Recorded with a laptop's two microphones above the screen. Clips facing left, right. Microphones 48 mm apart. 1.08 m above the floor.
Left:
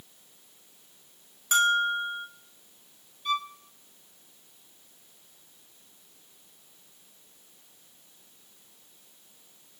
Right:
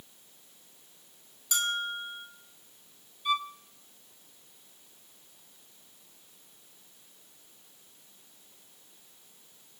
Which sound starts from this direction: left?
A bell, at 1.5 s.